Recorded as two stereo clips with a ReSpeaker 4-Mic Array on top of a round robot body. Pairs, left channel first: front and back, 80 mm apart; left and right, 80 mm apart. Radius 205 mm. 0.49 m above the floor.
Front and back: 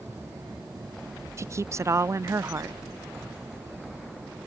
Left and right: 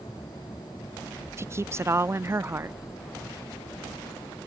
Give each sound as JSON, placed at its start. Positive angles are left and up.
{"t": 1.4, "sound": "a woman speaking", "azimuth_deg": -135}